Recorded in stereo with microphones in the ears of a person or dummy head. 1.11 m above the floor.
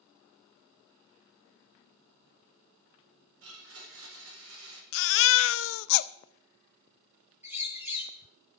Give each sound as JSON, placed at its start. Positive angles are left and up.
{"t": 3.4, "sound": "a blender", "side_deg": -80, "distance_m": 4.0}
{"t": 4.9, "sound": "a baby crying", "side_deg": 70, "distance_m": 0.5}
{"t": 7.4, "sound": "a bird", "side_deg": -10, "distance_m": 3.0}